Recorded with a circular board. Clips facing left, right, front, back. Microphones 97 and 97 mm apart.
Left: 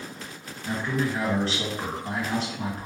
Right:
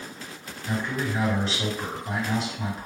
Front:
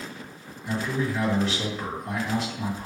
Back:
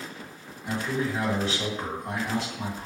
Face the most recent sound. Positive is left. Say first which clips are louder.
# left 1 dB, front 1 dB
turn(degrees=130)